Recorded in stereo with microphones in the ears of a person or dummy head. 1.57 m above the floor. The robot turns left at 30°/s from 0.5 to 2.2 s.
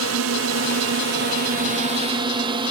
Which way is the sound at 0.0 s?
105° right.